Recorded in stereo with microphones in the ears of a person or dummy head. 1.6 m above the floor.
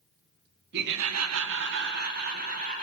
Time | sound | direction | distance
0.7 | laughter | 50° right (ahead or behind) | 0.7 m